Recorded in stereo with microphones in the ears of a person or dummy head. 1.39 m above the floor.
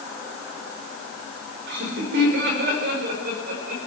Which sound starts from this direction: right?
Laughter, at 1.7 s.